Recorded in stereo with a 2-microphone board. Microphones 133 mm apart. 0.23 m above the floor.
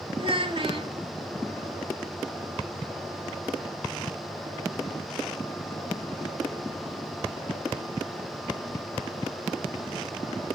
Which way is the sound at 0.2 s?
40° right (ahead or behind).